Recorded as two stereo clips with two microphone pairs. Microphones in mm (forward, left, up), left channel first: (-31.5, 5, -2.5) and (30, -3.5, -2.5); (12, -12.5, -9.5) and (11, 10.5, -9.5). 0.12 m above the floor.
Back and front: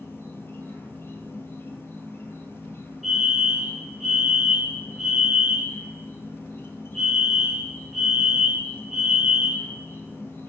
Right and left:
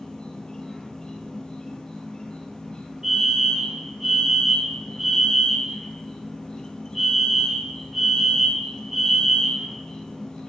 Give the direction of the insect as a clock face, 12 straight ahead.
5 o'clock.